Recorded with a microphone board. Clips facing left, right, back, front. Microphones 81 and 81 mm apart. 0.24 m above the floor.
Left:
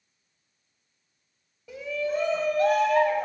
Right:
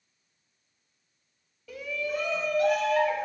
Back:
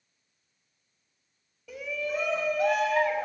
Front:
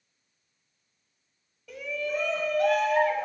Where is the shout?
95° left, 1.4 m.